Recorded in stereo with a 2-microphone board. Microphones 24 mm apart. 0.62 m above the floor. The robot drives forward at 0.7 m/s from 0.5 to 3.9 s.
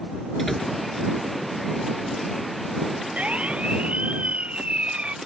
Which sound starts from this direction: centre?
A door slam, at 0.4 s.